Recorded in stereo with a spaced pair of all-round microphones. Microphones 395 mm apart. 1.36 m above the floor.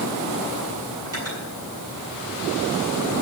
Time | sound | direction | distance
1.1 | cutlery clinking | 40° right (ahead or behind) | 7 m